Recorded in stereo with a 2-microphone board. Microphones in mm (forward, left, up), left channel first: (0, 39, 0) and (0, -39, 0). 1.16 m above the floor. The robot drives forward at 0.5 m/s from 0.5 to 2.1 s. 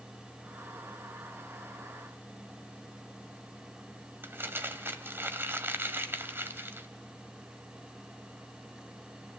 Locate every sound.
4.2 s crumpling: 30° right (ahead or behind), 1.7 m